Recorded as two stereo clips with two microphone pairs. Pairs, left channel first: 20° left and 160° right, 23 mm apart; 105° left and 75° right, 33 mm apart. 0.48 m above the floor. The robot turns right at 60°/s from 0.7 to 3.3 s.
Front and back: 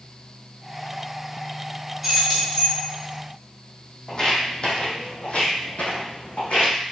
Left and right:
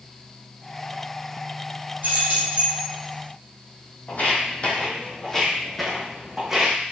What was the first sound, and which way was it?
Keys jangling, 75° right.